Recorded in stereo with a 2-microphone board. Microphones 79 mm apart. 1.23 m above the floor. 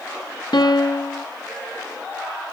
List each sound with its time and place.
0.5 s a piano: 65° left (ahead or behind), 1.0 m